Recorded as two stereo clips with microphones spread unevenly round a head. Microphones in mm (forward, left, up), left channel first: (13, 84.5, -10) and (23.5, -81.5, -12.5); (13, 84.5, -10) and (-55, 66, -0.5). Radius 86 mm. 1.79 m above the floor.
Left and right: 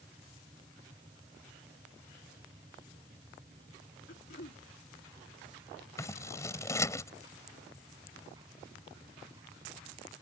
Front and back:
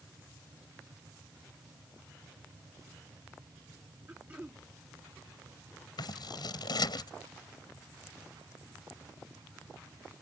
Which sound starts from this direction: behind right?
A machine running, at 0.0 s.